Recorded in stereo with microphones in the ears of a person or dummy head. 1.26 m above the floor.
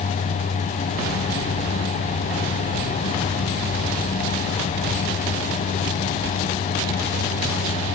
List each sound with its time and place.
Only background noise.